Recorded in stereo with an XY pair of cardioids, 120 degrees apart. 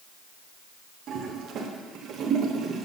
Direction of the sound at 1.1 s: 55° right.